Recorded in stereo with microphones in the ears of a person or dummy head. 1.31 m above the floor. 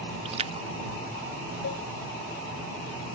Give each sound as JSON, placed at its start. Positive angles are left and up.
{"t": 0.2, "sound": "a splash", "side_deg": -30}
{"t": 1.6, "sound": "a cowbell", "side_deg": 80}